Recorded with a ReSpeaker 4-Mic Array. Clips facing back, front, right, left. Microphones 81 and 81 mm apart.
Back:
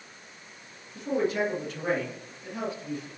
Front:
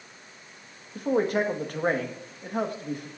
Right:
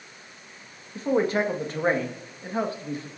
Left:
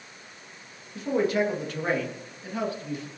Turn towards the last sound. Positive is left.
turn(degrees=-35)